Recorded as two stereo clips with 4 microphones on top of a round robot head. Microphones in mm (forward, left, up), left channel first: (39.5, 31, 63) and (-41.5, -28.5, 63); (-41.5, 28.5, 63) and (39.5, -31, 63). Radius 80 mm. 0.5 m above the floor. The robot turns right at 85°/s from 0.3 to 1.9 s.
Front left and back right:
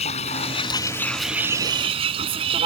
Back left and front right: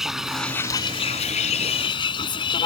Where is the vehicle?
50° left; by 2.7 s 175° right.